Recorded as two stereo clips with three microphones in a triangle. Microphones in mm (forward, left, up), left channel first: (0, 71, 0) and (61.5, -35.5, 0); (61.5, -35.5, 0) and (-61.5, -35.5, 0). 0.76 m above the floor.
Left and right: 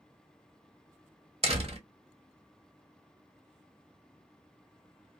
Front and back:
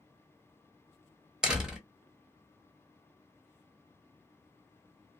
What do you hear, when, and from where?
1.4 s a door slam: 95° right, 0.8 m